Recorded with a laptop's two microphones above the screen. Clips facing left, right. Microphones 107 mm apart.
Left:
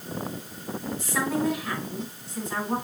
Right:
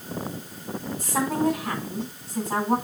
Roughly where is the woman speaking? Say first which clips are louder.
Right 3 dB; right.